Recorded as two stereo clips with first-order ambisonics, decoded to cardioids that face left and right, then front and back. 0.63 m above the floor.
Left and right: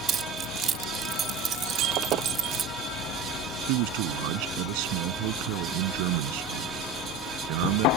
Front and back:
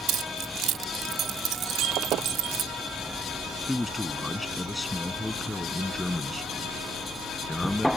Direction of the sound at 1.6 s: 135° right.